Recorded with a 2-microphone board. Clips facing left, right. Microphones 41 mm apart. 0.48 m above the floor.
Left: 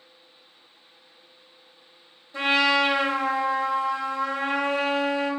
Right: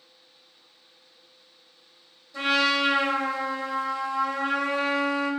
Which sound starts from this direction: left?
A trumpet, at 2.3 s.